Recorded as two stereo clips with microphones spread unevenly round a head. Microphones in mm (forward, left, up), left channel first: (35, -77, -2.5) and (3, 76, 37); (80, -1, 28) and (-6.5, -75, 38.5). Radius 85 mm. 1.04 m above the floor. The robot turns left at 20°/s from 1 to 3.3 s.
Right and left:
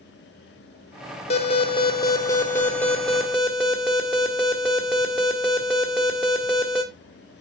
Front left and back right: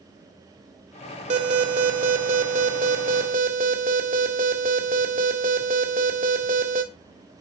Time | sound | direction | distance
1.3 | an alarm | 130° right | 1.7 m